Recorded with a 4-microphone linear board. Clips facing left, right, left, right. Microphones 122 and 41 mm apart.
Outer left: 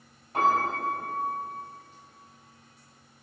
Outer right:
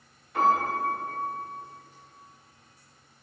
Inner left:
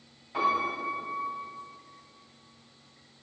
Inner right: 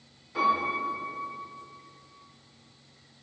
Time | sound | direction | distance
0.3 | a piano | 45° left (ahead or behind) | 1.2 m